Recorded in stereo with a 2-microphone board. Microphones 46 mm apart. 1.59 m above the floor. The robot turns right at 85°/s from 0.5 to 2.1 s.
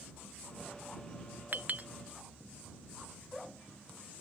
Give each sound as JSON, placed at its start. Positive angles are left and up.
{"t": 1.5, "sound": "a clink", "side_deg": -45}